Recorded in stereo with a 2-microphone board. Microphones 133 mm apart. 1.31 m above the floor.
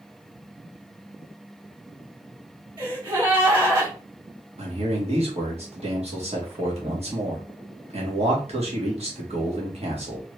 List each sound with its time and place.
2.8 s a gasp: 40° right (ahead or behind), 1.9 m
4.6 s a man speaking: 50° right (ahead or behind), 1.3 m